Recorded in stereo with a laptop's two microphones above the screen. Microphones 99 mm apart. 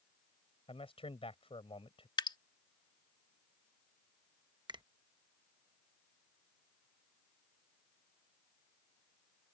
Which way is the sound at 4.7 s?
50° right (ahead or behind).